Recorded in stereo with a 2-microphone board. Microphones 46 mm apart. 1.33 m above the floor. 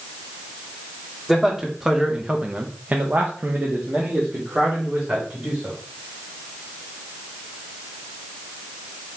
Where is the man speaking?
Centre (ahead or behind), 1.0 m; by 5.8 s 25° right (ahead or behind), 1.7 m.